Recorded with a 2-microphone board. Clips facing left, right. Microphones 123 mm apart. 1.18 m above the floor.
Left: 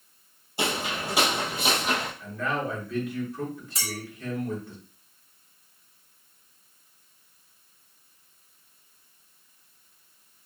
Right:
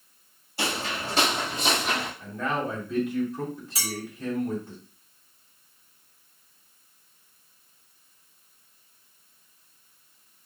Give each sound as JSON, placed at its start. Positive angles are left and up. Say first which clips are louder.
{"t": 0.6, "sound": "footsteps", "louder": "left 1 dB", "side_deg": 20, "distance_m": 1.5}
{"t": 2.2, "sound": "a man speaking", "louder": "right 1 dB", "side_deg": -25, "distance_m": 2.5}
{"t": 3.8, "sound": "a clink", "louder": "right 2 dB", "side_deg": -5, "distance_m": 2.0}